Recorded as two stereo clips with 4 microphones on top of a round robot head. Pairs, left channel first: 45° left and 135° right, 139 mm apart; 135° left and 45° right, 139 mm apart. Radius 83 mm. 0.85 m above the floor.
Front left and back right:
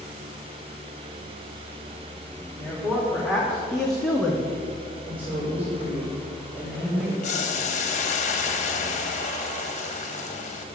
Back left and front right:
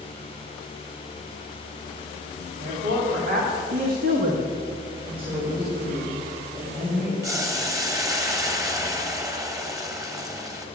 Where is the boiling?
20° left, 1.2 m.